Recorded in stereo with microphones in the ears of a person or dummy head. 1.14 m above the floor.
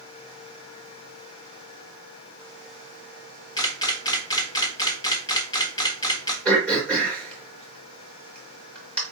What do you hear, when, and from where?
3.6 s a camera shutter: 25° left (ahead or behind), 1.2 m
6.5 s throat clearing: 10° left (ahead or behind), 3 m